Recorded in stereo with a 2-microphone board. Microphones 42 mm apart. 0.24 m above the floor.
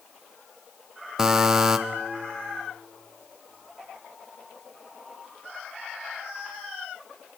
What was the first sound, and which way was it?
A buzzer, 15° right (ahead or behind).